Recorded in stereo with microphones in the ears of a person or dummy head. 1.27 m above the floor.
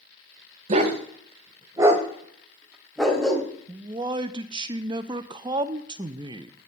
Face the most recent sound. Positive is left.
turn(degrees=-20)  # may be behind; listen again after turning